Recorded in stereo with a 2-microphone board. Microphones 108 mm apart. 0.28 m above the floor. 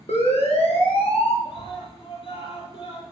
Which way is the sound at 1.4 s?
65° left (ahead or behind).